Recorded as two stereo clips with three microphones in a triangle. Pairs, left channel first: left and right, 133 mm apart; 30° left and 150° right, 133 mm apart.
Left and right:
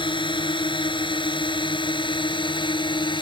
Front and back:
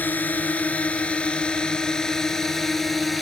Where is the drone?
100° left; by 3.2 s 120° left.